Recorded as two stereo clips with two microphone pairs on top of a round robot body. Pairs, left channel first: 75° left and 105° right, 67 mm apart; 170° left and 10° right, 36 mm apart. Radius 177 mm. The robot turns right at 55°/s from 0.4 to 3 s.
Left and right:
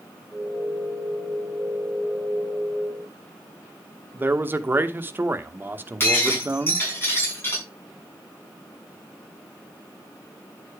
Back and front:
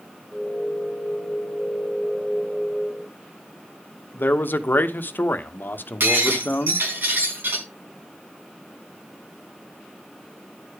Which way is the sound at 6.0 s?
15° left.